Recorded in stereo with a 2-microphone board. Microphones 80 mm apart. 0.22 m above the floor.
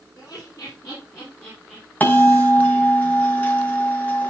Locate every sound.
0.2 s laughter: 50° left (ahead or behind), 5 m; by 1.9 s 20° left (ahead or behind), 3.5 m
2.0 s a bell: 20° left (ahead or behind), 1.9 m